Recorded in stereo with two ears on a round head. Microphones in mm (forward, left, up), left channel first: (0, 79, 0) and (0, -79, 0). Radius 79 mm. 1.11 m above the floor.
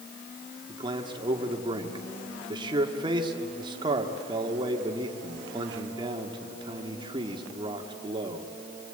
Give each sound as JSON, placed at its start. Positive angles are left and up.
{"t": 0.7, "sound": "a man speaking", "side_deg": -25, "distance_m": 2.0}